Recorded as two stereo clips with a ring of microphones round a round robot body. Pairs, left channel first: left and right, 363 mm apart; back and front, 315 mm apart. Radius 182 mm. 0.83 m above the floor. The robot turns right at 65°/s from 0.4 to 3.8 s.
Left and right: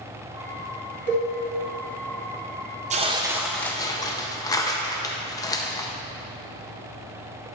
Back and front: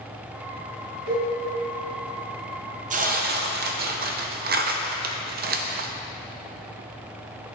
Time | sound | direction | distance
1.1 | a cowbell | 120° right | 2 m
2.9 | tearing paper | 40° right | 0.5 m